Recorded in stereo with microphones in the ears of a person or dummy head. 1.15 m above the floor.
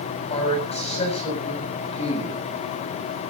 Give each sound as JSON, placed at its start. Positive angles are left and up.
{"t": 0.3, "sound": "a man speaking", "side_deg": 25, "distance_m": 7.0}